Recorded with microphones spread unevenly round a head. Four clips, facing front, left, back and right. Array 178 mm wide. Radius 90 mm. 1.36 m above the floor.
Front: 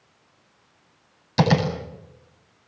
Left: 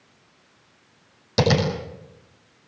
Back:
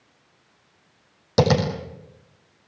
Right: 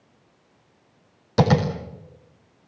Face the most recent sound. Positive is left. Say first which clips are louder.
# right 1 dB, back 1 dB
turn(degrees=-175)